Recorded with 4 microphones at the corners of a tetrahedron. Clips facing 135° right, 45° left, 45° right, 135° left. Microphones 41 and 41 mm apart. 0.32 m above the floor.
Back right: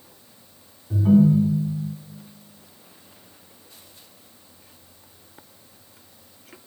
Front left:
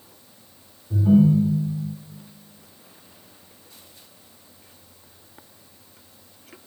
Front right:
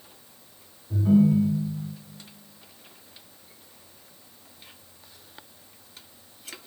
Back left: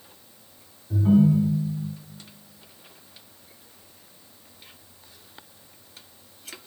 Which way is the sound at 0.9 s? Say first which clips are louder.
Even, back left 1 dB; 165° right.